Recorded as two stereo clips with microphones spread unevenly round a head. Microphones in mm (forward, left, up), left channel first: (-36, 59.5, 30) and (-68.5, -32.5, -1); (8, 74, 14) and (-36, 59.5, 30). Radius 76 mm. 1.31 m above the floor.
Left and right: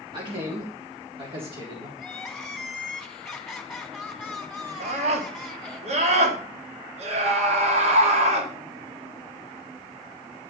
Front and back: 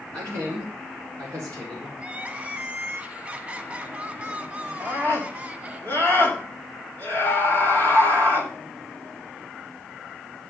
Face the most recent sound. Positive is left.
turn(degrees=-100)